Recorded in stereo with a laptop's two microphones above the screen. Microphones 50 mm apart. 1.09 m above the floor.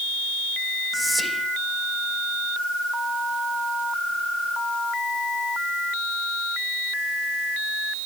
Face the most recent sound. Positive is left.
turn(degrees=0)  # may be behind; listen again after turning